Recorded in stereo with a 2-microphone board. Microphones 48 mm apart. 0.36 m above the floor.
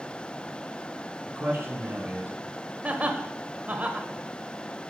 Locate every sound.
1.3 s a man speaking: 55° right (ahead or behind), 5 m; by 2.4 s 50° right (ahead or behind), 3.5 m
2.8 s laughter: 30° right (ahead or behind), 1.1 m